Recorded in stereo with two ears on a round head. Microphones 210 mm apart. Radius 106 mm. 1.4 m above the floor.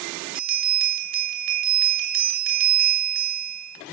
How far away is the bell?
About 2.5 m.